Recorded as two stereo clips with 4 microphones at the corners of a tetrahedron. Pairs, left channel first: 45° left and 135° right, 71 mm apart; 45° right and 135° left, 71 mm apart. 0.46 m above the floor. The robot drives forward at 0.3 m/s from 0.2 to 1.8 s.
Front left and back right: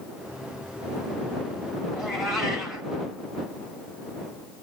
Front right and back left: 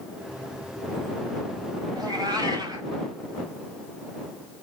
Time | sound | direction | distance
1.9 | a cat meowing | 140° left | 1.4 m